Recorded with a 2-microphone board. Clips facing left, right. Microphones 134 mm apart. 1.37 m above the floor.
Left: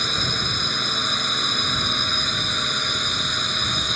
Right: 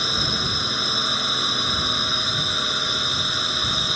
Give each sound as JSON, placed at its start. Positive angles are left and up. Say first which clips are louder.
{"t": 0.0, "sound": "a drone", "louder": "right 1 dB", "side_deg": -5}